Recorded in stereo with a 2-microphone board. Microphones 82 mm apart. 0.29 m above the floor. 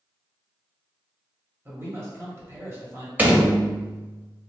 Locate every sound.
1.6 s a man speaking: 30° right (ahead or behind), 1.3 m
3.2 s a door slam: 25° right (ahead or behind), 0.7 m